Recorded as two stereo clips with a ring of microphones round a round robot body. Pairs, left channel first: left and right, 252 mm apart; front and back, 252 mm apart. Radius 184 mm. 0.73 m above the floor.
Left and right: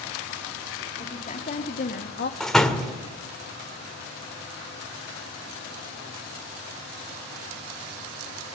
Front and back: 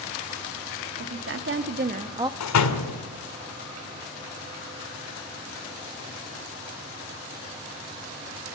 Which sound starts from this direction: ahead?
A door slam, at 2.4 s.